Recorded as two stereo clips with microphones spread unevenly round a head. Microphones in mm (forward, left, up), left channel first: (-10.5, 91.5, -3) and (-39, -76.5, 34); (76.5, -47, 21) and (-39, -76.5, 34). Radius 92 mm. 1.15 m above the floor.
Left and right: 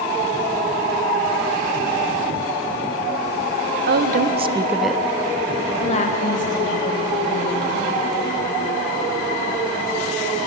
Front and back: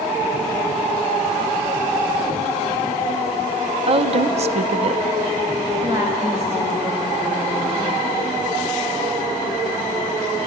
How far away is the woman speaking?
About 0.6 m.